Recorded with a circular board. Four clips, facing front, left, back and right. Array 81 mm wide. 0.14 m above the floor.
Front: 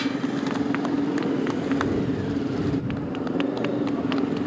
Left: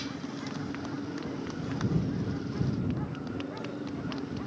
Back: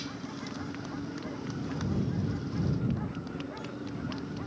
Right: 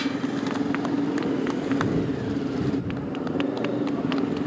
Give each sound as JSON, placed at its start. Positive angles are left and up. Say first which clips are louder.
{"t": 0.0, "sound": "a motorcycle", "louder": "right 11 dB, front 14 dB", "azimuth_deg": -40}